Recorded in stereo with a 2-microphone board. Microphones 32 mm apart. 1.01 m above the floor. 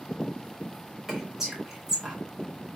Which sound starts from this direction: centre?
Whispering, at 1.1 s.